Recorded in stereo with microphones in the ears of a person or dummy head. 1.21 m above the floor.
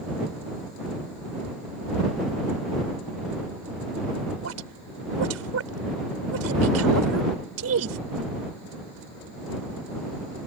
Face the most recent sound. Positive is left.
turn(degrees=-85)